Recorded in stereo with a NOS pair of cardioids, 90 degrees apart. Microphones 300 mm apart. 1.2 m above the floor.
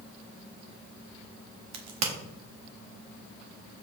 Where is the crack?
65° right, 1.3 m.